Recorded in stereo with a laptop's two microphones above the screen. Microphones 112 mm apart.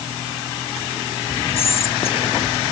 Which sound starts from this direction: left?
Whispering, at 1.6 s.